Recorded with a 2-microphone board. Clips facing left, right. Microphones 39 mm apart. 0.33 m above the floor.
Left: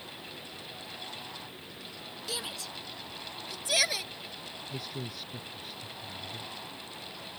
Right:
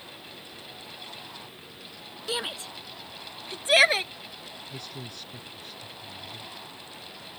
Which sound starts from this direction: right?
A shout, at 2.3 s.